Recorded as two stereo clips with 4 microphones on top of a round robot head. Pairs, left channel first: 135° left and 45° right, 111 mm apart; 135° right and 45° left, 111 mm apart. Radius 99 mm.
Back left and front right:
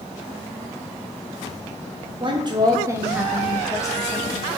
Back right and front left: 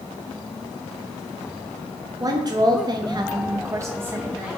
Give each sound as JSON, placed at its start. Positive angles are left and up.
{"t": 2.2, "sound": "a woman speaking", "azimuth_deg": -10, "distance_m": 0.9}